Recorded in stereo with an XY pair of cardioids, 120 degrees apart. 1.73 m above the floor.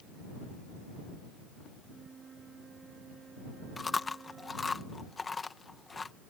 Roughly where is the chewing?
Ahead left.